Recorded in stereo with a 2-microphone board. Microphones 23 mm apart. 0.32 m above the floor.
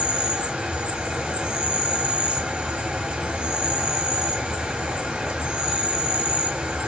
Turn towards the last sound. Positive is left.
turn(degrees=-65)  # may be behind; listen again after turning